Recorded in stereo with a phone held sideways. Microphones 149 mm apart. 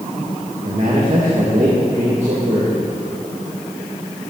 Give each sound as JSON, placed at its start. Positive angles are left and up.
{"t": 0.7, "sound": "a man speaking", "side_deg": -45, "distance_m": 1.2}